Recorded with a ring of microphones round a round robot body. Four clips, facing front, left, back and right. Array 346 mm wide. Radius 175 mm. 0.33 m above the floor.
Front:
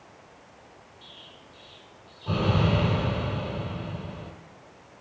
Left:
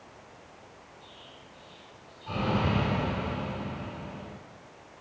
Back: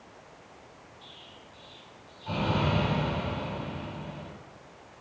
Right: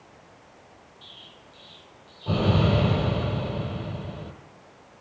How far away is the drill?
No drill in this recording.